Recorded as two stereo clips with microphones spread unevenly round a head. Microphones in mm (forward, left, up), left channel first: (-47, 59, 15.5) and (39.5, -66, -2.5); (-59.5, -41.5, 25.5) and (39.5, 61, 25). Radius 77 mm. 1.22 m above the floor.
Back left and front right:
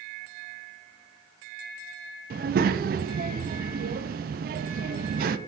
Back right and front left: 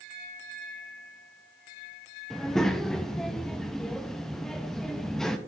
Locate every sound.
2.3 s a child speaking: 50° right, 0.6 m